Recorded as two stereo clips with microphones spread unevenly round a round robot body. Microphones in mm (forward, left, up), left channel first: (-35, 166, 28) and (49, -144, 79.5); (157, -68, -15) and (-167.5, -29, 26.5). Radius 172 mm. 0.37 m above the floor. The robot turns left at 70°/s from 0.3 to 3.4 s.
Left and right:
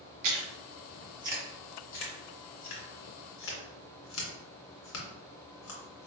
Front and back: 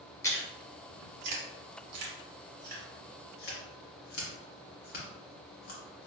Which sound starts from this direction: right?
Chewing, at 0.2 s.